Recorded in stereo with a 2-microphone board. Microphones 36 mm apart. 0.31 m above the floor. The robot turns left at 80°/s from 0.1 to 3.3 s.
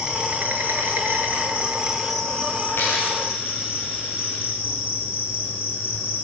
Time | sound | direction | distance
0.0 | an insect | 25° right | 7 m
2.7 | a dropped coin | 80° left | 10 m